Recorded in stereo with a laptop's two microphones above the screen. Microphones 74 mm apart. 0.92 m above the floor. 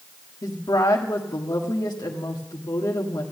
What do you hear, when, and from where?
0.4 s a woman speaking: 65° left (ahead or behind), 1.9 m